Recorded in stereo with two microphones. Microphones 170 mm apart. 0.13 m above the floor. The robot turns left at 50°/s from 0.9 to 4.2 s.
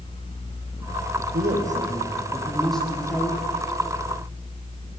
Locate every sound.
1.3 s a man speaking: 110° right, 6.5 m; by 3.4 s 145° left, 6.5 m